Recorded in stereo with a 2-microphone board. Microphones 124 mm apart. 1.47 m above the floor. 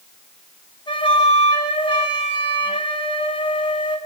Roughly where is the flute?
Left.